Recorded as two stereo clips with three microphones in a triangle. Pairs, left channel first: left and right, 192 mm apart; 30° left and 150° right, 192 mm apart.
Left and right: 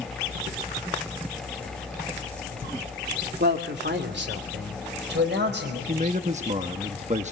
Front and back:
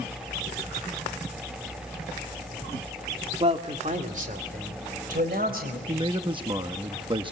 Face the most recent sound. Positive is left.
turn(degrees=-105)